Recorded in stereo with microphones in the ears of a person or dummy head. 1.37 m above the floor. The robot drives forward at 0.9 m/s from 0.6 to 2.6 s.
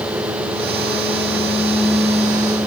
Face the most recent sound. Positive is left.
No sound to turn to.